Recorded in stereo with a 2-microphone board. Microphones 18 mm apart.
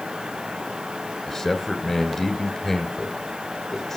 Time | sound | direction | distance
1.3 | a man speaking | 15° left (ahead or behind) | 1.9 m